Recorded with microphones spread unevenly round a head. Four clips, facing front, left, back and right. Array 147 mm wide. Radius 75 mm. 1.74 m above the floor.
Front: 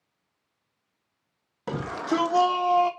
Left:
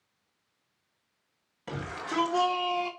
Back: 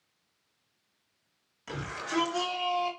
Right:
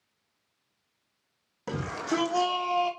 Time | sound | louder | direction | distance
1.7 | a shout | right 5 dB, front 8 dB | 20° right | 2.5 m